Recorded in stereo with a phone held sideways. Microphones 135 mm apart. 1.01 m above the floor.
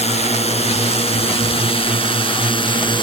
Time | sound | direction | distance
0.0 | a drone | 55° left (ahead or behind) | ?